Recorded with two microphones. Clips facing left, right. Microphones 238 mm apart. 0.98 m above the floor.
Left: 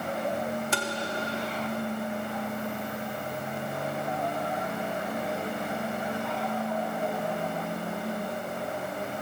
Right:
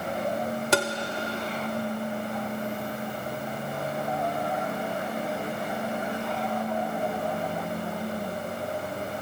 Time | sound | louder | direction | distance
0.7 | tapping | right 7 dB | 75° right (ahead or behind) | 1.5 m